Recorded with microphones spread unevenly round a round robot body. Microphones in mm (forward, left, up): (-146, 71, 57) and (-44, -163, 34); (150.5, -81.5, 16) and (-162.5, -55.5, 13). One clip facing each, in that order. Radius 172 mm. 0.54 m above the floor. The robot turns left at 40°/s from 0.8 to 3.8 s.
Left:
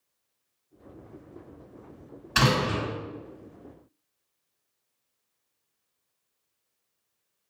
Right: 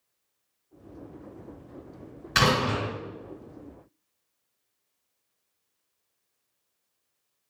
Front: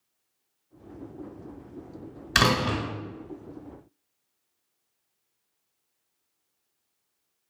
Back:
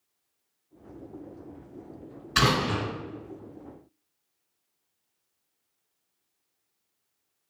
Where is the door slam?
Straight ahead, 1.6 m; by 2.8 s 20° right, 1.6 m.